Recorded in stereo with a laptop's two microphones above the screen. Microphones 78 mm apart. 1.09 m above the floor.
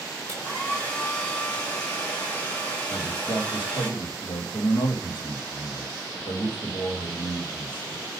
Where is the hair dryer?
15° left (ahead or behind), 4 m.